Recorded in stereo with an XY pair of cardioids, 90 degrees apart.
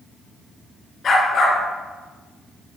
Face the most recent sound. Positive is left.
turn(degrees=55)